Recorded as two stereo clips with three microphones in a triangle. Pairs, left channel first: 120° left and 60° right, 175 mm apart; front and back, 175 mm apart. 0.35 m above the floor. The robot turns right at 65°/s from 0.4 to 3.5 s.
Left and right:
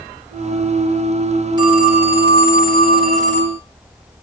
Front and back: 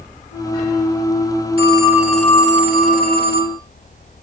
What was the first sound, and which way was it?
A phone ringing, 125° right.